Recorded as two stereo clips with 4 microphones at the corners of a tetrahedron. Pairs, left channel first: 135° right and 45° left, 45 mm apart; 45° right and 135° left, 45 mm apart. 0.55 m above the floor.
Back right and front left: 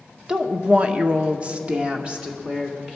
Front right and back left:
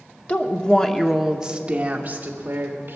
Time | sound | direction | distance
0.3 | a woman speaking | 15° right | 1.1 m